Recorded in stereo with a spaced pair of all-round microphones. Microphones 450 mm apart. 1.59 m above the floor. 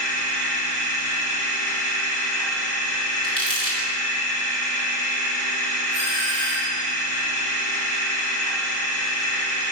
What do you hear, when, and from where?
0.0 s a machine running: 40° right (ahead or behind), 2.5 m
3.2 s crumpling: 15° left (ahead or behind), 3.5 m
5.9 s a doorbell: 65° right (ahead or behind), 4 m